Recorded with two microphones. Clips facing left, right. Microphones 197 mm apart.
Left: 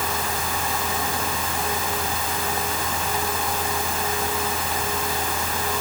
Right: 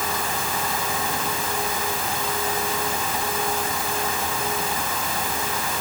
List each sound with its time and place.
Only background noise.